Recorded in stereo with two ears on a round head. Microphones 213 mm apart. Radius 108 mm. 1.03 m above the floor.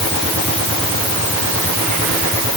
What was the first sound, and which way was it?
Only background noise.